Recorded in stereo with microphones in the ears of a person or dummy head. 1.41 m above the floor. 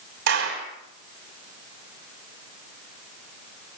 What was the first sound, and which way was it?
A clap, 55° right (ahead or behind).